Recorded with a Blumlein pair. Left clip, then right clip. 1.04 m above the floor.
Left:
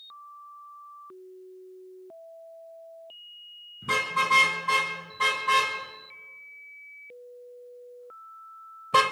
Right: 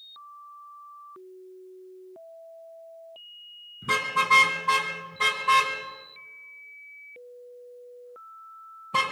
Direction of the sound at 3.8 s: 5° right.